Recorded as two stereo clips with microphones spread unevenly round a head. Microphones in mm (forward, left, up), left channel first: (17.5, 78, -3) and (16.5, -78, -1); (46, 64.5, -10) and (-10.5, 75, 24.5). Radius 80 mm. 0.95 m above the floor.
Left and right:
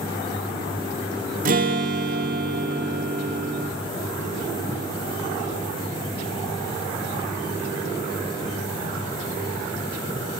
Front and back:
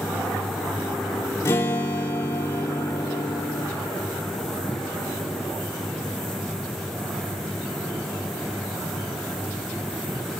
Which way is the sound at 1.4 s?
55° right.